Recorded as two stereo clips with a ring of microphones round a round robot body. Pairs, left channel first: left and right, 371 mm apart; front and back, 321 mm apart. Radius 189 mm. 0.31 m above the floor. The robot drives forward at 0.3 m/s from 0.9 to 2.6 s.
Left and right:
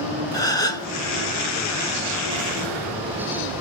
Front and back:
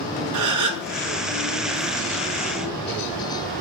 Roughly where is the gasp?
Behind.